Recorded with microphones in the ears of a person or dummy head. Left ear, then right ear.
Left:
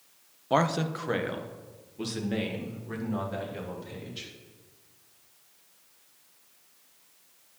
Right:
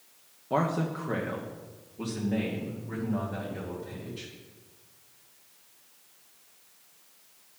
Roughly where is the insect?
No insect in this recording.